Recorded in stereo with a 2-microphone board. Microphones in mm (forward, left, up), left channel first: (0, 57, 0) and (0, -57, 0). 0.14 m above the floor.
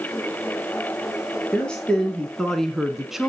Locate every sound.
1.5 s a woman speaking: 5° left (ahead or behind), 2.5 m; by 3.3 s 5° right (ahead or behind), 1.4 m